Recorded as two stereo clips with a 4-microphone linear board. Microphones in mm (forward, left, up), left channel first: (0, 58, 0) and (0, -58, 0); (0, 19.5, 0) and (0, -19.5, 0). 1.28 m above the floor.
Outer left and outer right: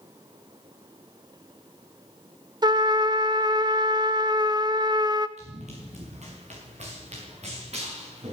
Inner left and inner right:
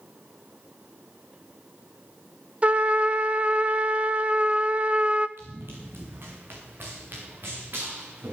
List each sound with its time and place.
2.6 s a trumpet: 40° right (ahead or behind), 0.7 m
5.4 s running footsteps: 75° right (ahead or behind), 5 m; by 8.3 s 65° right (ahead or behind), 7 m